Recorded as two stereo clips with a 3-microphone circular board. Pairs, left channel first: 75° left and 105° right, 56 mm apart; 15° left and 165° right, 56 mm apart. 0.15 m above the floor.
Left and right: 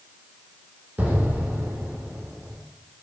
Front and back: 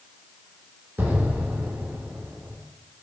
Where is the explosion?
150° right, 0.9 m.